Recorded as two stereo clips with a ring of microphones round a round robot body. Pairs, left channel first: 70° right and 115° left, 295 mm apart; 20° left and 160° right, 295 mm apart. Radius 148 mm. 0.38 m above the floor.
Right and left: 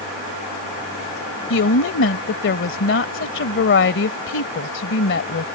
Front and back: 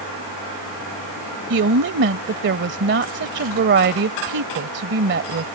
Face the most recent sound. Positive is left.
turn(degrees=-110)